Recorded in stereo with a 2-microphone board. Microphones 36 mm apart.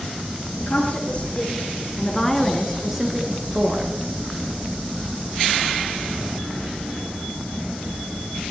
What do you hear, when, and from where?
0.6 s a woman speaking: 50° left (ahead or behind), 3 m; by 3.9 s 30° right (ahead or behind), 2.5 m